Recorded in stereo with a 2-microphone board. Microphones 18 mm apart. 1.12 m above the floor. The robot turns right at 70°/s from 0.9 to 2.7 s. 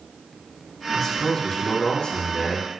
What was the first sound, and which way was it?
A man speaking, 25° left.